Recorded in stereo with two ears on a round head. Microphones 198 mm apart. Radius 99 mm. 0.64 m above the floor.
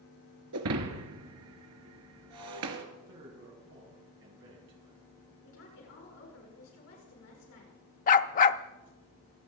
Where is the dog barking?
35° left (ahead or behind), 0.5 m.